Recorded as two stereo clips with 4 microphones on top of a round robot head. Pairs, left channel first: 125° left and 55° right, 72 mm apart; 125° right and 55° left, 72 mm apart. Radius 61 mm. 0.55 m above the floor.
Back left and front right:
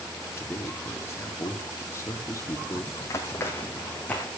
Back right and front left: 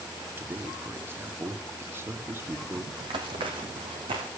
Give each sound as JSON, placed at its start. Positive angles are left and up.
{"t": 0.4, "sound": "a man speaking", "azimuth_deg": 95, "distance_m": 1.7}
{"t": 3.0, "sound": "running footsteps", "azimuth_deg": 80, "distance_m": 1.7}